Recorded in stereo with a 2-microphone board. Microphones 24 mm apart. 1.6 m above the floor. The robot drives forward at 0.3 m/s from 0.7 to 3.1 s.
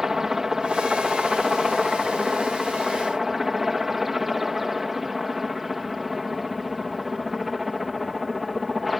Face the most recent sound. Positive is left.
turn(degrees=0)  # may be behind; listen again after turning